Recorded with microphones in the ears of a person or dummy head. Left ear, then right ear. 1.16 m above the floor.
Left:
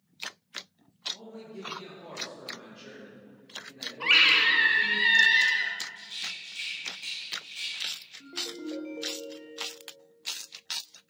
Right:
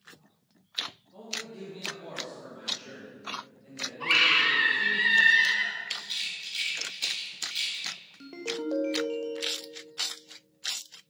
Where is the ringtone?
75° right (ahead or behind), 0.9 m.